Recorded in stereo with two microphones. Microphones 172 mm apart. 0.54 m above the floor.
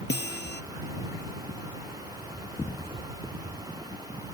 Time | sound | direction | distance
0.1 | a guitar | 85° left | ?